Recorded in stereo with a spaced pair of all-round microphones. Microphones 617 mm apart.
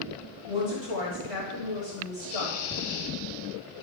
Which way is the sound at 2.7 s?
25° left (ahead or behind).